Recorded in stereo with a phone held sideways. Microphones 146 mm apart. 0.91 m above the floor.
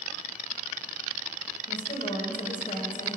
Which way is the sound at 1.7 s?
65° left (ahead or behind).